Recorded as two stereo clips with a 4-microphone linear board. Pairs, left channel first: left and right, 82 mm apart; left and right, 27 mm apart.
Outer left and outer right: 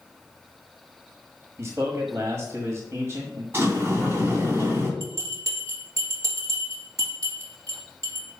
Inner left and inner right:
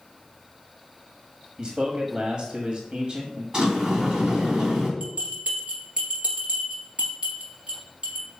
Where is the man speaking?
40° right (ahead or behind), 1.3 m.